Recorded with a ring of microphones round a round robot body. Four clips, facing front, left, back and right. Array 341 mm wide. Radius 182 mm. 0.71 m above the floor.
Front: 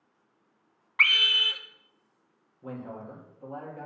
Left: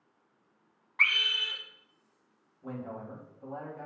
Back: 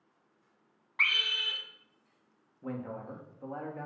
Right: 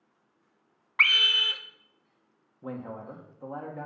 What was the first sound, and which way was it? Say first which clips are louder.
A scream: right 4 dB, front 6 dB; 70° right.